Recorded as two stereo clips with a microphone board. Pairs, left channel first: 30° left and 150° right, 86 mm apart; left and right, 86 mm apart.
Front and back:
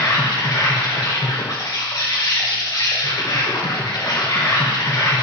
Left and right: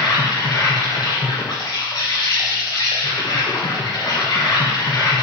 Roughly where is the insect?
Ahead left.